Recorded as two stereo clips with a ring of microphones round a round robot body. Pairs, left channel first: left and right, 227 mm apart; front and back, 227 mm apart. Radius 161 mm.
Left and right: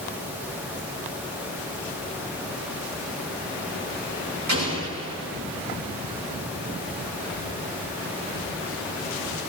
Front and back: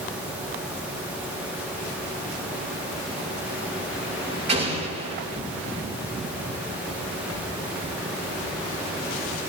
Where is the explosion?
120° right, 6.5 m.